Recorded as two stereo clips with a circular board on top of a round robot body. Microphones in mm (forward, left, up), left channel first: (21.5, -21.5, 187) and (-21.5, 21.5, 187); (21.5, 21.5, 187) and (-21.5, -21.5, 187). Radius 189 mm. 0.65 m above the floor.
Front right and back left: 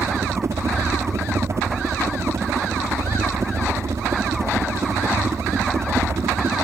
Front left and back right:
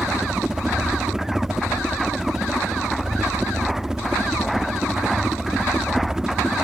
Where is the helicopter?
150° left.